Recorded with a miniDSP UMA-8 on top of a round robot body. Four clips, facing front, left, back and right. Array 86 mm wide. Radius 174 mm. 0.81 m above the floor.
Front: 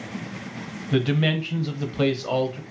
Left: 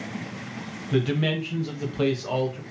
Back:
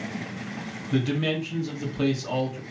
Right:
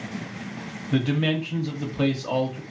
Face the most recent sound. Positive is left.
turn(degrees=0)